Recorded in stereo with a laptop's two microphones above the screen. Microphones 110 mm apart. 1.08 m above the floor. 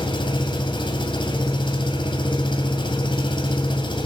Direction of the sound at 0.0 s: 45° left (ahead or behind).